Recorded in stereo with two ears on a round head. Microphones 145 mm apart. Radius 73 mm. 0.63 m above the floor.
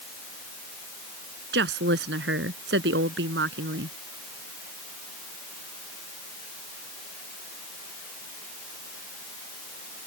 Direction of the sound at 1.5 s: 75° right (ahead or behind).